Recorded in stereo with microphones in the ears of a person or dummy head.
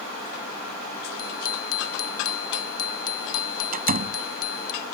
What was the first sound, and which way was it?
A bicycle bell, 45° left (ahead or behind).